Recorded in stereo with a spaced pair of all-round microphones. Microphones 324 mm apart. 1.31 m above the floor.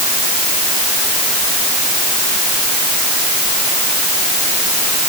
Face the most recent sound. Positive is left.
No sound to turn to.